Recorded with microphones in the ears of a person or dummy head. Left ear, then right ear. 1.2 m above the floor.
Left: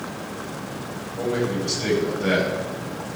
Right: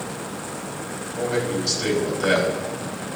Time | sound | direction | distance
1.2 | a man speaking | 85° right | 7.5 m